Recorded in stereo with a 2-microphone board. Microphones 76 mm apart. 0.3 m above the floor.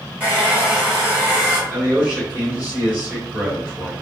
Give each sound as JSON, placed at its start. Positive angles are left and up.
{"t": 0.2, "sound": "a hair dryer", "side_deg": -20, "distance_m": 1.4}
{"t": 1.7, "sound": "a man speaking", "side_deg": -25, "distance_m": 1.7}